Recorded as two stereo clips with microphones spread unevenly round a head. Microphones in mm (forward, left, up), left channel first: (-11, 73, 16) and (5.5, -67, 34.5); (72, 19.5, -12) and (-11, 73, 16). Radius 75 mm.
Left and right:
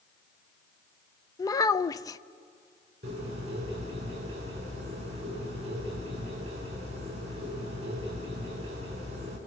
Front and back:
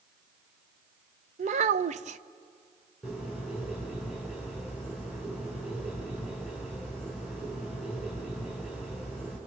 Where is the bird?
130° right, 6 m.